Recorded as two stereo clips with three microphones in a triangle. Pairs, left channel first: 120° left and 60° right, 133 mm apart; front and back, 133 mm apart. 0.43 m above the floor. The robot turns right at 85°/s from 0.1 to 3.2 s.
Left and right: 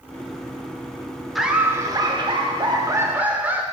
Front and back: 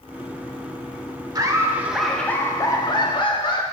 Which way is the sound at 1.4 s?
150° right.